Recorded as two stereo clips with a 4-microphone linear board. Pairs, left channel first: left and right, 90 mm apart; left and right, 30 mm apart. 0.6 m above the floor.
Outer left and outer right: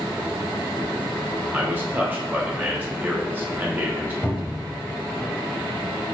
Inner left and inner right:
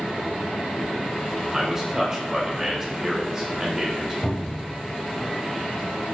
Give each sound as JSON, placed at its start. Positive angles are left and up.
{"t": 1.5, "sound": "a man speaking", "side_deg": -20, "distance_m": 0.8}
{"t": 4.2, "sound": "a cupboard door", "side_deg": 15, "distance_m": 1.0}